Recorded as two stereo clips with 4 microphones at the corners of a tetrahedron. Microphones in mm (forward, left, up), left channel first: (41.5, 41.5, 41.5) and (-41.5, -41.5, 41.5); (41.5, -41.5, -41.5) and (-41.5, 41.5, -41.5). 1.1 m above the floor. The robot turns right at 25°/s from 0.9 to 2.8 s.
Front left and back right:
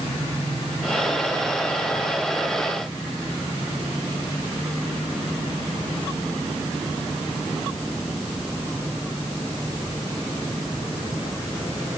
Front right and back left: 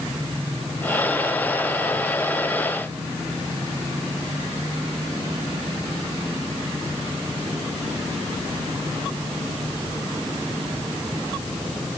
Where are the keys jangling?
I don't hear keys jangling.